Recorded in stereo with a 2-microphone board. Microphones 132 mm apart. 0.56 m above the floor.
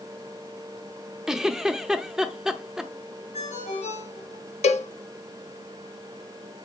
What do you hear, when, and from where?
1.3 s a giggle: 5° right (ahead or behind), 0.6 m
3.3 s a ringtone: 55° left (ahead or behind), 5.5 m
4.6 s a cowbell: 55° left (ahead or behind), 0.5 m